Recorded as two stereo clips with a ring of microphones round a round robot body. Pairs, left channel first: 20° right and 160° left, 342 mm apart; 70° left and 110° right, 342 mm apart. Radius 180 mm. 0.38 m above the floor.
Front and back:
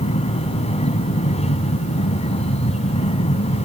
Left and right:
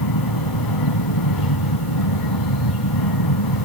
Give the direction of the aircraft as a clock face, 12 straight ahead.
10 o'clock.